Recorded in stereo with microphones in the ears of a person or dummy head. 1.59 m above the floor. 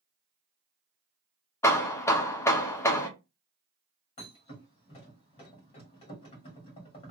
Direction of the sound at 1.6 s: 10° left (ahead or behind).